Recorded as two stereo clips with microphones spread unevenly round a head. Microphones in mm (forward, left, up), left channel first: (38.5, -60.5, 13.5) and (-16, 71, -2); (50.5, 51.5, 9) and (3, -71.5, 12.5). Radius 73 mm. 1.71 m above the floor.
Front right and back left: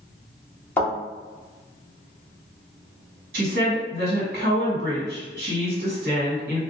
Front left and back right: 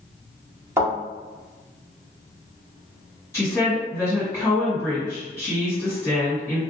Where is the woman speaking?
145° left, 1.7 m.